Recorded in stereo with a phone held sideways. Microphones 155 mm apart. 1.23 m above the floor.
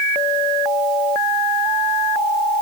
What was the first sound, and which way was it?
Only background noise.